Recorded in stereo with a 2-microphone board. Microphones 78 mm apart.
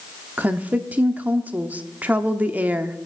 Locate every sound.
0.4 s a woman speaking: 20° right (ahead or behind), 0.7 m